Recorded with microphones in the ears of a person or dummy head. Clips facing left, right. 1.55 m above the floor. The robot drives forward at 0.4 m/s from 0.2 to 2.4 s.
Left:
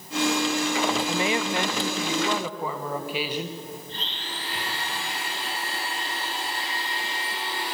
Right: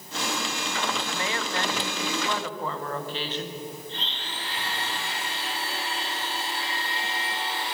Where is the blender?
35° left (ahead or behind), 6 m.